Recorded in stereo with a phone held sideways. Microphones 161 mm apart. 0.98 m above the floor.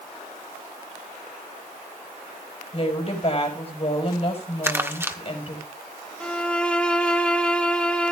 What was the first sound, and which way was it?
A woman speaking, 40° left (ahead or behind).